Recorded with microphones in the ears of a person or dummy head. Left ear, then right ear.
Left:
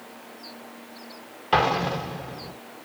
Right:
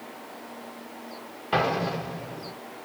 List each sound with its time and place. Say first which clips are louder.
1.5 s an explosion: left 3 dB; 10° left (ahead or behind), 1.0 m